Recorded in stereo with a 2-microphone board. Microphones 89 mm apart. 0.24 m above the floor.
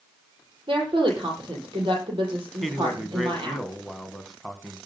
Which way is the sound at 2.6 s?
Centre (ahead or behind).